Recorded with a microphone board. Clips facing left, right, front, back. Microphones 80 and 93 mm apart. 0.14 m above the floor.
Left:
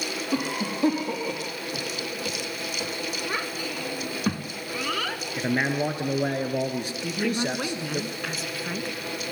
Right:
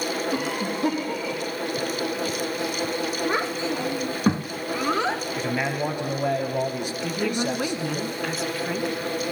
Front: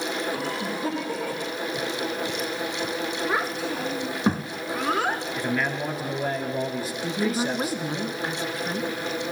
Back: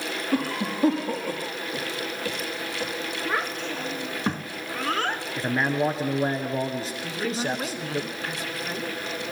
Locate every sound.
0.3 s a cough: 145° left, 4.5 m
3.2 s a child speaking: 70° right, 0.8 m
5.4 s a man speaking: 130° left, 1.9 m
7.0 s a woman speaking: 5° right, 1.1 m